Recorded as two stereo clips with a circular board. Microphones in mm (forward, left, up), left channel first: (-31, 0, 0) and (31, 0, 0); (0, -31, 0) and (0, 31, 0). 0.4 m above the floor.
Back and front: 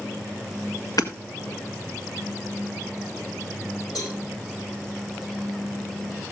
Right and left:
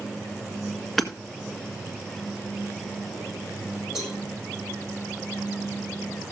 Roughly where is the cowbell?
Behind.